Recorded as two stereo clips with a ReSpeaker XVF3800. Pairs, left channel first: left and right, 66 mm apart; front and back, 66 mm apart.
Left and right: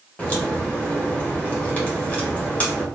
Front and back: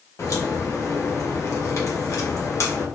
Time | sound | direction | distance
0.2 | a crack | 25° left | 1.0 m